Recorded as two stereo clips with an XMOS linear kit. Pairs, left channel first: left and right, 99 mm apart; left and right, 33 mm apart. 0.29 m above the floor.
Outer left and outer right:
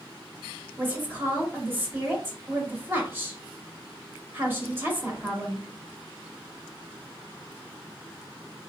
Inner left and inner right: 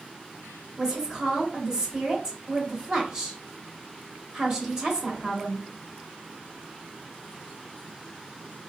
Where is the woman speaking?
20° right (ahead or behind), 0.9 m.